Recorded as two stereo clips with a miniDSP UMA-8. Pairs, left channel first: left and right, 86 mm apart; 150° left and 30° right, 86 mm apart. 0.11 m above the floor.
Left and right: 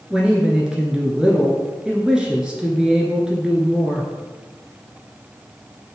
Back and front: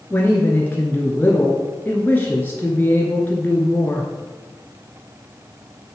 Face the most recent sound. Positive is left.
turn(degrees=-165)